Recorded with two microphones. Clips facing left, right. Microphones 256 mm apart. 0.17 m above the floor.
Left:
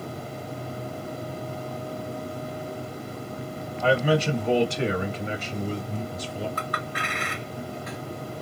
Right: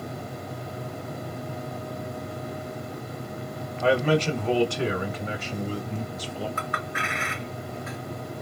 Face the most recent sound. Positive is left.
turn(degrees=40)  # may be behind; listen again after turning